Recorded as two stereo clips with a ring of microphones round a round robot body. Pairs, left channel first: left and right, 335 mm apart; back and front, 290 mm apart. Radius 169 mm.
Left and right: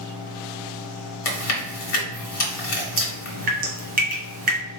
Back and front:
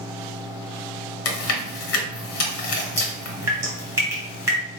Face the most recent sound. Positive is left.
turn(degrees=-70)